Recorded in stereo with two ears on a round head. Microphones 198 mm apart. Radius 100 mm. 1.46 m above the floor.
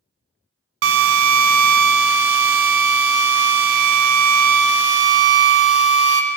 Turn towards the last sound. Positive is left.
turn(degrees=-60)  # may be behind; listen again after turning